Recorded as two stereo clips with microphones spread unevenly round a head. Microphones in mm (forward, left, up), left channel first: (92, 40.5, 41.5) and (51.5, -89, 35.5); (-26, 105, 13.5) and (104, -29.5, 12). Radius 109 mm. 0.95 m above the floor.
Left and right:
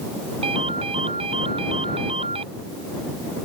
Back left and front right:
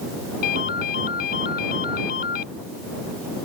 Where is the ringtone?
175° right.